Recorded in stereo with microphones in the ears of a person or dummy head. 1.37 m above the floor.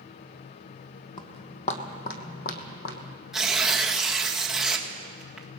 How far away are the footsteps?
About 2 m.